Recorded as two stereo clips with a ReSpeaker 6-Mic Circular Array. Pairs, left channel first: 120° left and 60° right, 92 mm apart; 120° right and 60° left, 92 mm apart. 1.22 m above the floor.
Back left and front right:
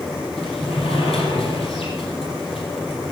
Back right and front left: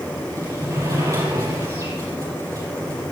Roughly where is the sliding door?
Behind left.